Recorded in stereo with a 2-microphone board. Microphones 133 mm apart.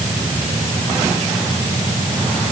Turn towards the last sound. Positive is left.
No sound to turn to.